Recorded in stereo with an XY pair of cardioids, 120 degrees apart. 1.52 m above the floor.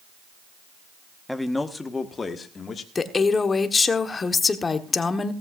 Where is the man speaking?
5° left, 1.2 m; by 2.9 s 35° left, 1.9 m.